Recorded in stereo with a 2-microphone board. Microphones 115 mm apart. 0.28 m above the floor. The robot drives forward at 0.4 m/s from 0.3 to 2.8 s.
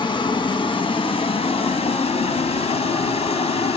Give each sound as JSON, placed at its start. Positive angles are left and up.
{"t": 0.0, "sound": "running water", "side_deg": 40, "distance_m": 1.3}